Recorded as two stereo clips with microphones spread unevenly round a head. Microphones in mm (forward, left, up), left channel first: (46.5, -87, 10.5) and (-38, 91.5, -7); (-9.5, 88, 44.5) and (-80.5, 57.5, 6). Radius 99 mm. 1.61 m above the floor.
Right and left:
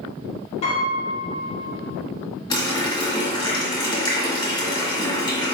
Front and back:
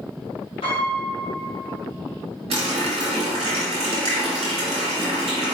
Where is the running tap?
130° right, 1.3 m.